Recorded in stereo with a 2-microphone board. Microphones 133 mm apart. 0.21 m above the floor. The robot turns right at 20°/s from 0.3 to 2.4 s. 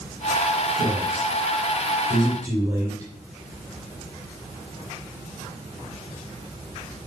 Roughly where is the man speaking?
Right.